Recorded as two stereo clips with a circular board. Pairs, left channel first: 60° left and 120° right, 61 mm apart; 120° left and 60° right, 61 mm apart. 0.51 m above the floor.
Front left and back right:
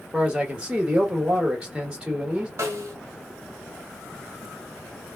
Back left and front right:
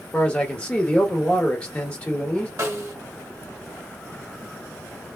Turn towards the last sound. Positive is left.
turn(degrees=-90)